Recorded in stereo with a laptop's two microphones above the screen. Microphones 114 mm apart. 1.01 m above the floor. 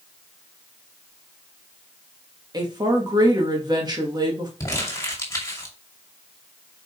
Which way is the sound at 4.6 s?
25° left (ahead or behind).